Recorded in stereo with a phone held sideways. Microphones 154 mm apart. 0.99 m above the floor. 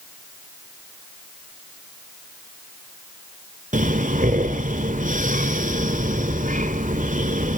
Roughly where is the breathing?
Right.